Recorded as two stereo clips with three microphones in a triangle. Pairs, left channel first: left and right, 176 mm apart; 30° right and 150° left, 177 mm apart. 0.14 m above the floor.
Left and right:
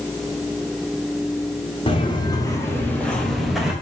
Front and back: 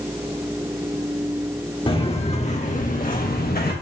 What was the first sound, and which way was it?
Footsteps, 30° left.